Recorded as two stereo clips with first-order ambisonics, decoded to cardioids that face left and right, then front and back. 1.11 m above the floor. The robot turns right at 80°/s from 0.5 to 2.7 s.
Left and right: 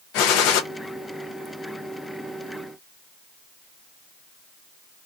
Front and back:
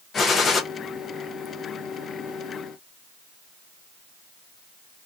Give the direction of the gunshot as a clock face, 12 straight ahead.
10 o'clock.